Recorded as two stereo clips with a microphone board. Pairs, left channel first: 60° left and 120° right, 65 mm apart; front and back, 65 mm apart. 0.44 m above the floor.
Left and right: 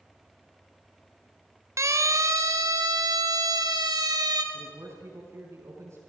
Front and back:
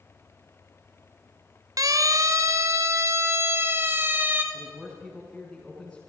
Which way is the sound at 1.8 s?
160° right.